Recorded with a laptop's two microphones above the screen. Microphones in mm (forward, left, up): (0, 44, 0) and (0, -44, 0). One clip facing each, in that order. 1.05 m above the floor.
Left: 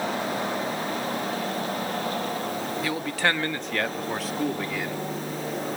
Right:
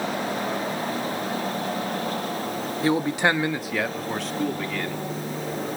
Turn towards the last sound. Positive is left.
turn(degrees=10)  # may be behind; listen again after turning